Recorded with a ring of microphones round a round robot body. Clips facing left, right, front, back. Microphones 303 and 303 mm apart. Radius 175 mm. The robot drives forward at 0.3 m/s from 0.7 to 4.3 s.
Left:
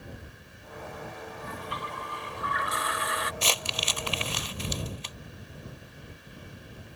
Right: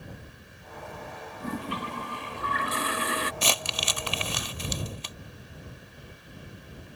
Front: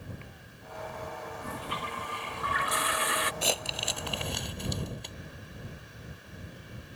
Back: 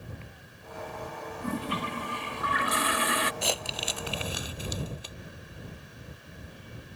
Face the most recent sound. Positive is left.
turn(degrees=-95)